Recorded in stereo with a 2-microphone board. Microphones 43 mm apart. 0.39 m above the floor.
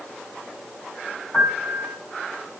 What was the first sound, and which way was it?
A piano, 35° left (ahead or behind).